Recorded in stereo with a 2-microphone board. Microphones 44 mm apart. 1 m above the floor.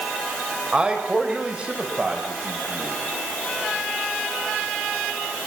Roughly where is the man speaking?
Centre.